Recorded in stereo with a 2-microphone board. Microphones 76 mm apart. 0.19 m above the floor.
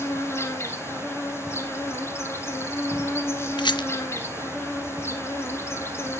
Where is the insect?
35° left (ahead or behind), 1.3 m.